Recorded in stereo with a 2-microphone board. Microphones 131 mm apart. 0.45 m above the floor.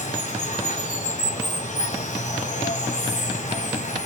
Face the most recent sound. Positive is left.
turn(degrees=70)  # may be behind; listen again after turning